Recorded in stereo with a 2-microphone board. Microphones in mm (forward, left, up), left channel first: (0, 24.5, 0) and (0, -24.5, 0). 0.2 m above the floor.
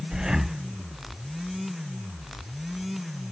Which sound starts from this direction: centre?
Breathing, at 0.1 s.